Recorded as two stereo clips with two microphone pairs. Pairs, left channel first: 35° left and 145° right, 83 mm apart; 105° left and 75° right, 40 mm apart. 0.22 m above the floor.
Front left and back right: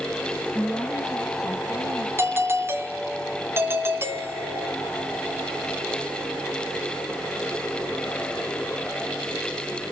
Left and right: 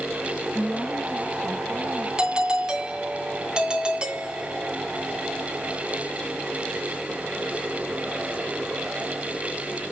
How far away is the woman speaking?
About 1.1 m.